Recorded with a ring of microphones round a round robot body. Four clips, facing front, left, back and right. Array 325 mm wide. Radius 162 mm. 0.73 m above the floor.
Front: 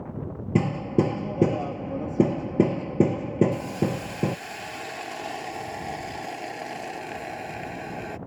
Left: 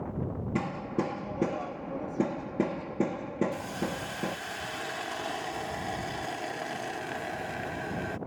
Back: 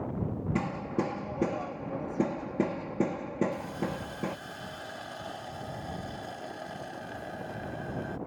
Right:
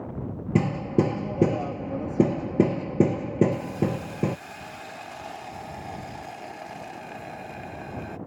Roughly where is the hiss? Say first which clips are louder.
Right 6 dB, front 7 dB; ahead left.